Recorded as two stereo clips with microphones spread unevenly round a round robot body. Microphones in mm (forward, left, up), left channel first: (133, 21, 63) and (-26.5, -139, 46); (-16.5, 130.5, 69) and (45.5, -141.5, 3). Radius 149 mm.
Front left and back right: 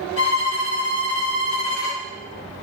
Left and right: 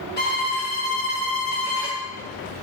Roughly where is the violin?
Ahead left.